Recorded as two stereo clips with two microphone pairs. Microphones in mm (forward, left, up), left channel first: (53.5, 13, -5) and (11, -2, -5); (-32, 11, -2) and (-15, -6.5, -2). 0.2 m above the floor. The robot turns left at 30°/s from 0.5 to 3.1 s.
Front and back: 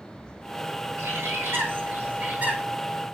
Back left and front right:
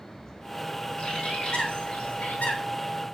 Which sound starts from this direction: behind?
A bird, at 1.0 s.